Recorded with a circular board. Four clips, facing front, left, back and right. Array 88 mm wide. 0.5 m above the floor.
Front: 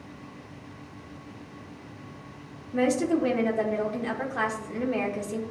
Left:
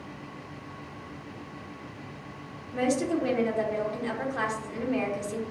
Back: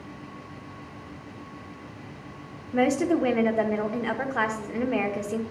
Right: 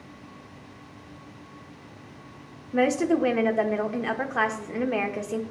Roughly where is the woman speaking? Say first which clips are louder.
Right 4 dB, back 1 dB; behind right.